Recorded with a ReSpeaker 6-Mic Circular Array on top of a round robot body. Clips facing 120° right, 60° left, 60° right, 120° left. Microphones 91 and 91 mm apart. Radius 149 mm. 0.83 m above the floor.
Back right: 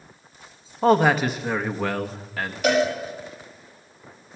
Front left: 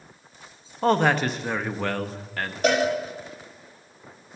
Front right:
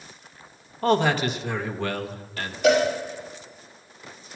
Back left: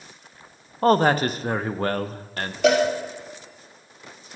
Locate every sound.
0.8 s a man speaking: 155° left, 0.8 m
2.6 s a cowbell: 115° left, 4.5 m